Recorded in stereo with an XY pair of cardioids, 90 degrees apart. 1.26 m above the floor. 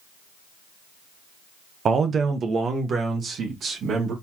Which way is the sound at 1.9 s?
55° right.